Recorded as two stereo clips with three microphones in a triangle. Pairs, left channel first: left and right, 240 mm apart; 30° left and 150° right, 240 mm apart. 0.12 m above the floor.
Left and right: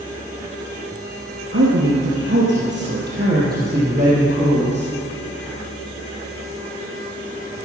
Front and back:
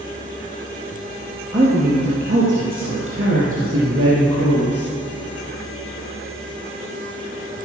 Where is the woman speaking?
95° right, 2.5 m; by 4.9 s 150° right, 4.5 m.